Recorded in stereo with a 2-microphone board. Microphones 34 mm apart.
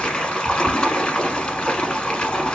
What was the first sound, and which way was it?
Running water, 25° left (ahead or behind).